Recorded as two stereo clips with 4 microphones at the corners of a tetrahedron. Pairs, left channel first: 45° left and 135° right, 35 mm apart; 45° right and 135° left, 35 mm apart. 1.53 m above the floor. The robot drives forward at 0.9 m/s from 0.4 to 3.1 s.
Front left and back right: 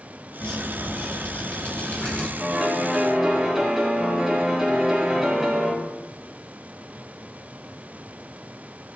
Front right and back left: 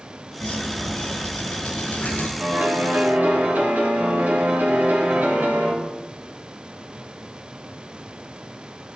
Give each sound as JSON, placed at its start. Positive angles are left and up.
{"t": 0.4, "sound": "dripping", "azimuth_deg": 0, "distance_m": 7.0}
{"t": 2.4, "sound": "a piano", "azimuth_deg": 140, "distance_m": 6.5}